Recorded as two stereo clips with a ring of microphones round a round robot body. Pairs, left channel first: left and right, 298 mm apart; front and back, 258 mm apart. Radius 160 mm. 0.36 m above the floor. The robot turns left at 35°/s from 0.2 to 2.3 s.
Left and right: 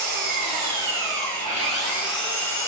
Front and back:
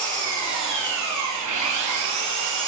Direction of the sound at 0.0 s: 110° right.